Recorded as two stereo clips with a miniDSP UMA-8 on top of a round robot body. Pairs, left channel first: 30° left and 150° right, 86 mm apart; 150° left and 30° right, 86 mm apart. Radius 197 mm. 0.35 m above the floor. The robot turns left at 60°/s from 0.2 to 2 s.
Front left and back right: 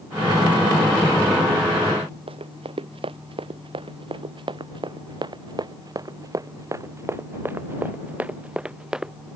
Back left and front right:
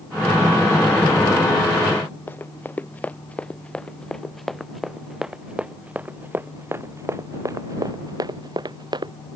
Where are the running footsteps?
145° right; by 9.1 s 65° right.